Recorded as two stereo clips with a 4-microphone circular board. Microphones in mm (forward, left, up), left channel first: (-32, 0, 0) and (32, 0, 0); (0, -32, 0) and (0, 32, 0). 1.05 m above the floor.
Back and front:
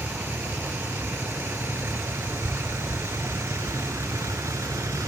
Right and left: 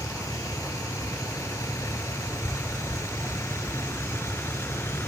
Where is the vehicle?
60° right; by 5.1 s 40° right.